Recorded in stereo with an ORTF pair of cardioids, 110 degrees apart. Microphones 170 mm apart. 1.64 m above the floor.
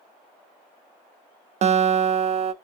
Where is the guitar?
45° right, 0.5 m.